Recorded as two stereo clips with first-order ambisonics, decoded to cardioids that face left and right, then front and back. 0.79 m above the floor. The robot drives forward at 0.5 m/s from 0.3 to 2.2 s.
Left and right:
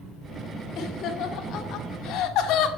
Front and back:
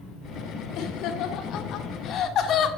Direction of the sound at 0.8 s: 35° left.